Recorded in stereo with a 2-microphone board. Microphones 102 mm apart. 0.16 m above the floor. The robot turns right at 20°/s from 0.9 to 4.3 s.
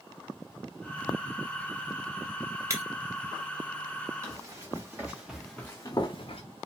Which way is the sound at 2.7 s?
30° right (ahead or behind).